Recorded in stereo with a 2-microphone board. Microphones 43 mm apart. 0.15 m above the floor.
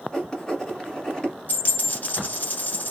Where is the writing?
15° left (ahead or behind), 1.4 m.